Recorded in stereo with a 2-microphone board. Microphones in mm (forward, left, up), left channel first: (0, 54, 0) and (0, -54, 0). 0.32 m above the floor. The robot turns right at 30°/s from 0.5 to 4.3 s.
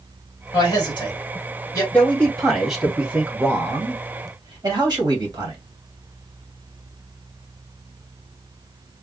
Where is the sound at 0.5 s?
50° left (ahead or behind), 2.5 m; by 1.8 s 30° left (ahead or behind), 2.5 m.